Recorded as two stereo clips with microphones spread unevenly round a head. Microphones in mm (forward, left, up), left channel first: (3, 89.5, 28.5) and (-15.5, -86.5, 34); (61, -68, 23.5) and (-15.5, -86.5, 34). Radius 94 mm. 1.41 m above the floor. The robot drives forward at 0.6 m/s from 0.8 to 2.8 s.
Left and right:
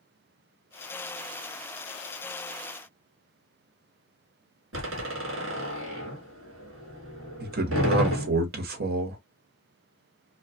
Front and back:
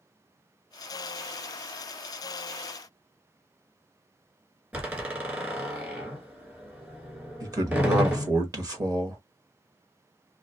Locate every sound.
4.7 s a door slam: 100° right, 1.2 m
7.4 s a man speaking: 130° right, 0.8 m